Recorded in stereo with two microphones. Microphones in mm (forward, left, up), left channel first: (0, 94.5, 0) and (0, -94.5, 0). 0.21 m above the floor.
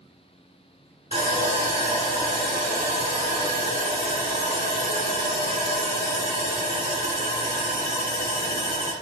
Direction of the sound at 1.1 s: 35° right (ahead or behind).